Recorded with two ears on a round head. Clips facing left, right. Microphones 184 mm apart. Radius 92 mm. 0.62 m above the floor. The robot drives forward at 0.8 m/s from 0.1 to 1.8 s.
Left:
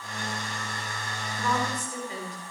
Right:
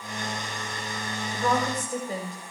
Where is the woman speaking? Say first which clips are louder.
Right 3 dB; 35° right (ahead or behind), 4 m; by 2.5 s 40° right (ahead or behind), 3.5 m.